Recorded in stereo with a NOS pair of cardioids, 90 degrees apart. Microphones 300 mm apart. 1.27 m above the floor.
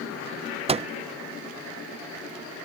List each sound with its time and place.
0.7 s a microwave: 20° right